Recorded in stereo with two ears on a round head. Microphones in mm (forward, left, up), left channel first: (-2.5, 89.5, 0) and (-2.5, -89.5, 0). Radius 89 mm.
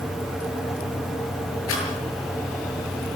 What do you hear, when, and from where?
1.7 s a rattle: 80° left, 8.5 m